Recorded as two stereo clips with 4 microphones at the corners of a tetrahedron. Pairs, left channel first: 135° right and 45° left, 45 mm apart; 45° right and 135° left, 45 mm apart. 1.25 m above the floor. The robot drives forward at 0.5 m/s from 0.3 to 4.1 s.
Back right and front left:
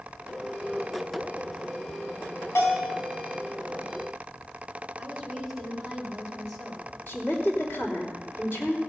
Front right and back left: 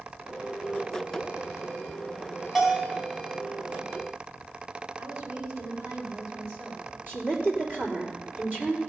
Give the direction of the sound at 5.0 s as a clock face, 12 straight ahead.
8 o'clock.